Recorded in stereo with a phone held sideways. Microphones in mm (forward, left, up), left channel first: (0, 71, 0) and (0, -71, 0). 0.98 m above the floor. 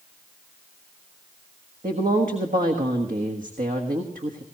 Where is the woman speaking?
75° right (ahead or behind), 1.4 m.